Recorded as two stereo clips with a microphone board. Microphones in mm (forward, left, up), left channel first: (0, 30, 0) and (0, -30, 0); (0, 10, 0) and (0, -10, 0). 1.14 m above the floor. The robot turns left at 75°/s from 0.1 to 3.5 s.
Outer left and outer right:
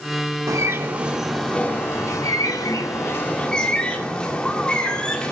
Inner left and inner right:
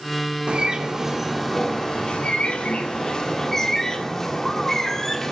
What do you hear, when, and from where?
0.5 s a bird: 115° right, 2 m; by 5.3 s 15° left, 2 m